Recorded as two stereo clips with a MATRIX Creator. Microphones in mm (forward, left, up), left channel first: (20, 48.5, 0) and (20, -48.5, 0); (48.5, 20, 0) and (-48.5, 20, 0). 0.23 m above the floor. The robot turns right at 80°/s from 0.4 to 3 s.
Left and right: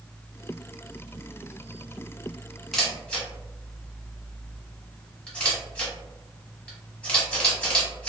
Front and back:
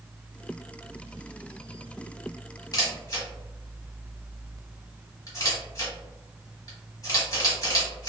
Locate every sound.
2.7 s a camera shutter: straight ahead, 1.1 m; by 8.1 s 20° left, 1.1 m